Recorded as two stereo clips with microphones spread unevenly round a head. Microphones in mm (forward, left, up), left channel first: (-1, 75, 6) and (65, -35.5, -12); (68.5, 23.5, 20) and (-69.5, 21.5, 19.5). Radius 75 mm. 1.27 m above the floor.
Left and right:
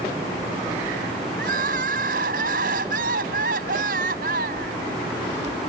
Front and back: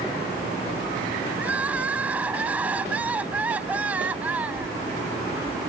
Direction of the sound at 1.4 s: 100° right.